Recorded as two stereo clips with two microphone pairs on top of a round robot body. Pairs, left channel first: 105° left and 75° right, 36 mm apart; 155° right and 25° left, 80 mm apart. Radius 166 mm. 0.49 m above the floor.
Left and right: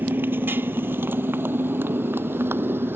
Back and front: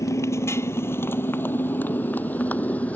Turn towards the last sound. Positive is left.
turn(degrees=-80)